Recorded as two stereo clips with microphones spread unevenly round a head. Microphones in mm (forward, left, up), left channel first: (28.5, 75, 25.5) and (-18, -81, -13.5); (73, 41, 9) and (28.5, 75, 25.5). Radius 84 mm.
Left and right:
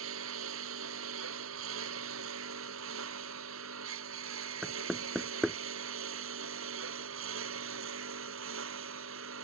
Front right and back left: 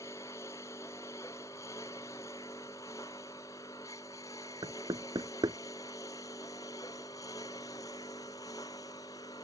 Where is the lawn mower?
110° right; by 9.4 s 100° right.